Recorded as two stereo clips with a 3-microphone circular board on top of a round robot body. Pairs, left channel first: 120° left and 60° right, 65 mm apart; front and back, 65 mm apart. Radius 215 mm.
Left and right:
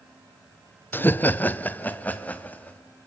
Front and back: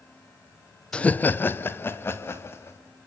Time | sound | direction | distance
0.9 | laughter | 70° left | 0.6 m